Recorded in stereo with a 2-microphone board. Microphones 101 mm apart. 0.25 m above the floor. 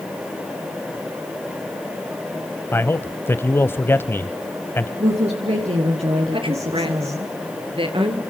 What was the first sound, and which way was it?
A man speaking, 25° left (ahead or behind).